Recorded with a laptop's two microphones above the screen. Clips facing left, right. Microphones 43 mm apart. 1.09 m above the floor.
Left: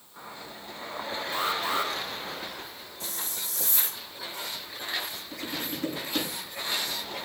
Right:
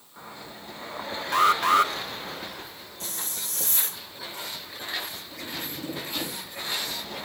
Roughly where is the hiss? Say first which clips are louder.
Even; right.